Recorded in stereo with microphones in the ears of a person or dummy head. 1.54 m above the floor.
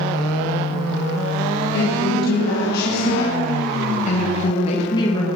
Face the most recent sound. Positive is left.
turn(degrees=25)  # may be behind; listen again after turning